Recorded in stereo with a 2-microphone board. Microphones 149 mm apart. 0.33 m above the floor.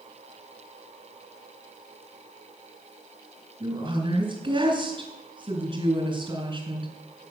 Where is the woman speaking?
35° right (ahead or behind), 4 m.